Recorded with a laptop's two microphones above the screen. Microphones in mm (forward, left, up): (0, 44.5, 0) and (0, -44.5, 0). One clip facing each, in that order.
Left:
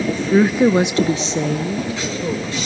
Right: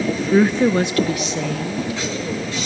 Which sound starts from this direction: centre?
A woman speaking, at 0.1 s.